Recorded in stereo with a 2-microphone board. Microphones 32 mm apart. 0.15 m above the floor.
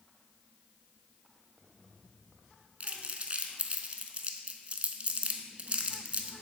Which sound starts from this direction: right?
Crumpling, at 2.8 s.